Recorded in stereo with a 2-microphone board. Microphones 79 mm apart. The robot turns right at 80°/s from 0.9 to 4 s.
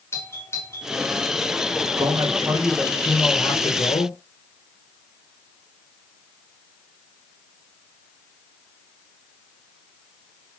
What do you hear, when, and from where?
0.1 s a doorbell: 30° left (ahead or behind), 4 m
2.0 s a man speaking: 85° right, 3.5 m; by 4.2 s 75° left, 3.5 m